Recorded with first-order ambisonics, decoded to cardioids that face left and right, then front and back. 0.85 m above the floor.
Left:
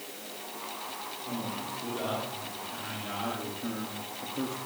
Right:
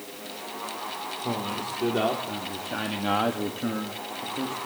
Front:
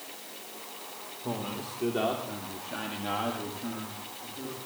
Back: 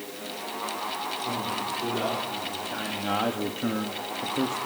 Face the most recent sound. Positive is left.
turn(degrees=175)